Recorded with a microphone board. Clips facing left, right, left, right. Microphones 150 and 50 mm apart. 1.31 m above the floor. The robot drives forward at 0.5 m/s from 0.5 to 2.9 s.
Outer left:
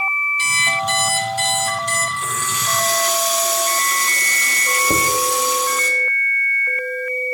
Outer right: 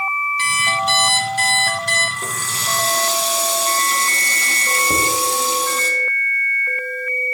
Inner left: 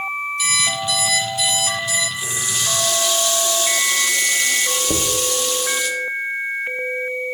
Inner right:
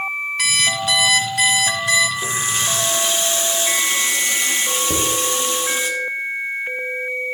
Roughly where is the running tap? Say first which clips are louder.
Outer left 3 dB, inner right 3 dB; right.